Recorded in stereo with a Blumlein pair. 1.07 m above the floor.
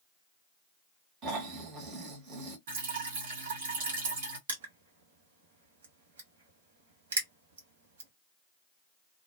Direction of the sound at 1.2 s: 35° right.